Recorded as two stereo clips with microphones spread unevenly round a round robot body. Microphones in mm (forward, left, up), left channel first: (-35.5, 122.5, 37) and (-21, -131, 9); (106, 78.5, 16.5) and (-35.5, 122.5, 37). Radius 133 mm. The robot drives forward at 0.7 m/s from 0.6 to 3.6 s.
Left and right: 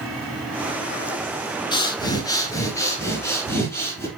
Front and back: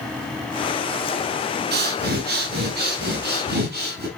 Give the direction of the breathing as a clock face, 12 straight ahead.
6 o'clock.